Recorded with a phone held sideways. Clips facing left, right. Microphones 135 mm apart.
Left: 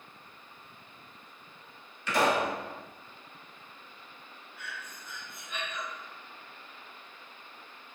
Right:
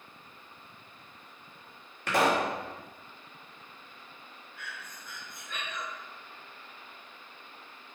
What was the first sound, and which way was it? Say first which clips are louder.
A pop: right 1 dB; 55° right (ahead or behind).